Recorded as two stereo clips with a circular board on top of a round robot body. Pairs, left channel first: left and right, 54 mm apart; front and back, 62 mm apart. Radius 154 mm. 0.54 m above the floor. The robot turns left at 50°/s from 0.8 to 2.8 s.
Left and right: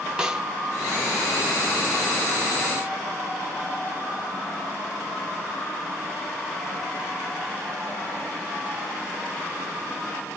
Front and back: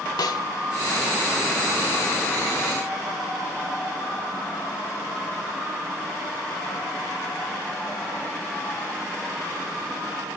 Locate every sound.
0.2 s a snare drum: 15° right, 1.3 m